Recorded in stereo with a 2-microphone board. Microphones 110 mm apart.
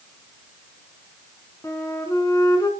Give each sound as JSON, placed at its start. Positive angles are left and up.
{"t": 1.6, "sound": "a flute", "side_deg": 30, "distance_m": 2.5}